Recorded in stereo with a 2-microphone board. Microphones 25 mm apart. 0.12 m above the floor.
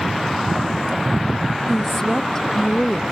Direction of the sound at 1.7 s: 15° left (ahead or behind).